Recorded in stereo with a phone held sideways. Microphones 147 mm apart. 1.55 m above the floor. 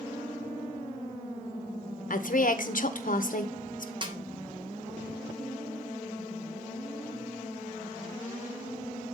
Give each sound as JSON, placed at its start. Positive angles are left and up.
{"t": 2.1, "sound": "a woman speaking", "side_deg": 65, "distance_m": 1.0}
{"t": 4.0, "sound": "a snare drum", "side_deg": -35, "distance_m": 1.1}